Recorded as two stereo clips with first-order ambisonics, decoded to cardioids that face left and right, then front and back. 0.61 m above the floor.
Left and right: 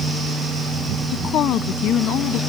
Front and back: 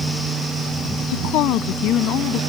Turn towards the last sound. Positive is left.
turn(degrees=45)